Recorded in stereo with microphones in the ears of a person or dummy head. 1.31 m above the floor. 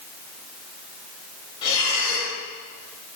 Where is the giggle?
I don't hear a giggle.